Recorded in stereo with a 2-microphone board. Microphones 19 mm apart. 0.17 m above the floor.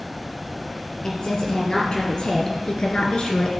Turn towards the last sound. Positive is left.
turn(degrees=50)  # may be behind; listen again after turning